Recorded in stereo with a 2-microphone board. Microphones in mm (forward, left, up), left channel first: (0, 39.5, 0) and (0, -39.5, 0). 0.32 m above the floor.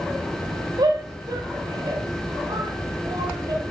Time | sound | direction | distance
0.8 | a shout | 60° right (ahead or behind) | 2 m